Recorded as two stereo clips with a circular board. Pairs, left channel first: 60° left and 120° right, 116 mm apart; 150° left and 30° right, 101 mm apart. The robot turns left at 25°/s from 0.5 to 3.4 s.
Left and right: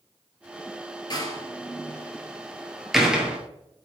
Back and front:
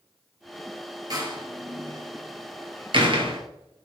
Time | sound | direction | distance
1.1 | a door slam | 10° left | 1.7 m